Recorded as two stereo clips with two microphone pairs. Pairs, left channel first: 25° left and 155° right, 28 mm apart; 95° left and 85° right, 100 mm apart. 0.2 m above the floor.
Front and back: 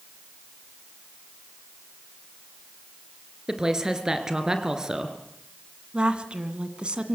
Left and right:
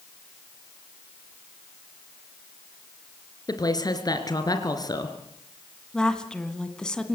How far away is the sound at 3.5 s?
About 3 m.